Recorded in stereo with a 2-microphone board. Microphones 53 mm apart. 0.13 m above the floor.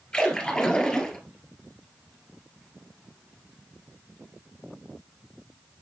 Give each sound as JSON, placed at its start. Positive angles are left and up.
{"t": 0.1, "sound": "a splash", "side_deg": 15, "distance_m": 1.6}